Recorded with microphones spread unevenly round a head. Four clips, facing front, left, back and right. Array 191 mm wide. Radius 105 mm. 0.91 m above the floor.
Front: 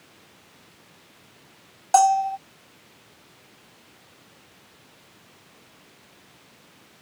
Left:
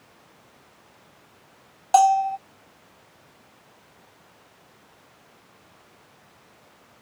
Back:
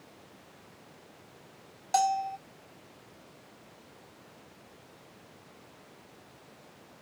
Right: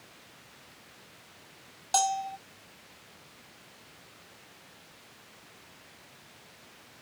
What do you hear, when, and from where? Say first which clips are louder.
1.9 s a bell: left 12 dB, front 9 dB; 75° left